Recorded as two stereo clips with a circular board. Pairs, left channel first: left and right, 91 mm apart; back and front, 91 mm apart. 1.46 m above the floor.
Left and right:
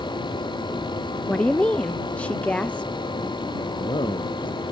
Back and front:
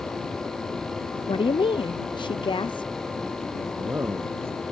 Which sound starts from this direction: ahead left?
A man speaking, at 3.7 s.